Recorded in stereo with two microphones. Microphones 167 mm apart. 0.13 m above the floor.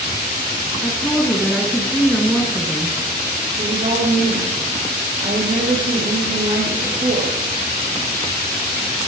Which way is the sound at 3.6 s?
50° right (ahead or behind).